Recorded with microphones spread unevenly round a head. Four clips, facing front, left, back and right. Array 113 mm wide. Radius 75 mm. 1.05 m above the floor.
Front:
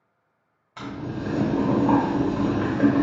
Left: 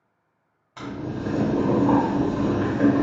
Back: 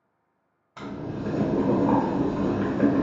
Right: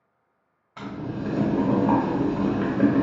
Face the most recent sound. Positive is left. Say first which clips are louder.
# left 1 dB, front 1 dB
turn(degrees=165)